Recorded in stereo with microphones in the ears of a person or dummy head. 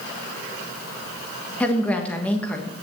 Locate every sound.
1.6 s a woman speaking: 10° left (ahead or behind), 1.5 m